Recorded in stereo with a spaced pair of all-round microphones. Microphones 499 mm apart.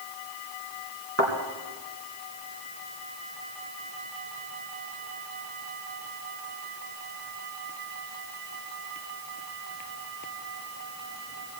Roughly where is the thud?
Right.